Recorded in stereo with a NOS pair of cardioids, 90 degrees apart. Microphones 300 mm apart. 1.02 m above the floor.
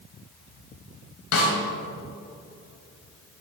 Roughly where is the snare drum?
Ahead left.